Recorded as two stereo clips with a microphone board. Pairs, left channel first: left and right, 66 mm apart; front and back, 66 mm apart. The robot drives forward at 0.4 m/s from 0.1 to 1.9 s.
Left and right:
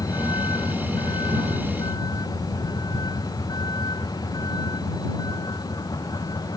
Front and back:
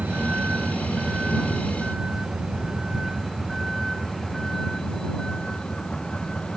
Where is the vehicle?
110° left; by 6.6 s 80° left.